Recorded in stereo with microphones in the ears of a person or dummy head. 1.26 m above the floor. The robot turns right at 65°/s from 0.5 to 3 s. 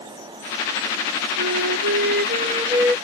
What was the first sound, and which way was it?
A flute, 105° right.